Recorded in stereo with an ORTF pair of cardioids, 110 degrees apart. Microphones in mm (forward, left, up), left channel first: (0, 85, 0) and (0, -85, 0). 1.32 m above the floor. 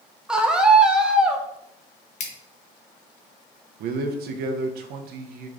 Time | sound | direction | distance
0.3 | a scream | 5° right | 0.8 m
2.2 | scissors | 45° left | 1.1 m
3.8 | a man speaking | 70° right | 0.7 m